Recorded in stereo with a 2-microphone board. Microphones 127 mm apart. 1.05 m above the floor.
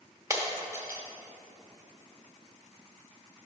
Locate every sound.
0.3 s breaking glass: 25° right (ahead or behind), 0.8 m